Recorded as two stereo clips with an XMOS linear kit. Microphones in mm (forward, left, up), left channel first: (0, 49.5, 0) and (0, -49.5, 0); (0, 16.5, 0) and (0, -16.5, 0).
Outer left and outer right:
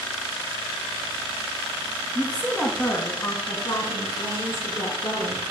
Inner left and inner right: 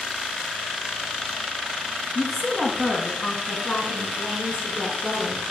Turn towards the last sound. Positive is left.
turn(degrees=60)  # may be behind; listen again after turning